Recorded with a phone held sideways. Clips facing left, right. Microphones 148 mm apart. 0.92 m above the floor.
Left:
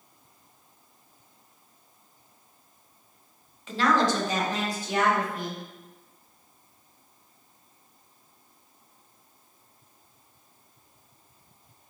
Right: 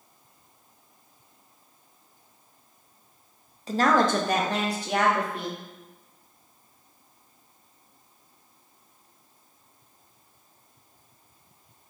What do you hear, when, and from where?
3.7 s a woman speaking: 35° right (ahead or behind), 0.5 m; by 5.6 s 75° right (ahead or behind), 1.7 m